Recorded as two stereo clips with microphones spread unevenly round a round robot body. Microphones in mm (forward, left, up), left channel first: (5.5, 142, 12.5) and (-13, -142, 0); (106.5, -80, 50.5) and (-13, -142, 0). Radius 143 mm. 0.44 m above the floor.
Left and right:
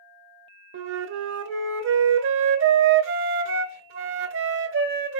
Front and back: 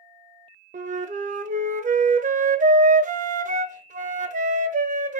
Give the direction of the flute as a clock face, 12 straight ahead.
5 o'clock.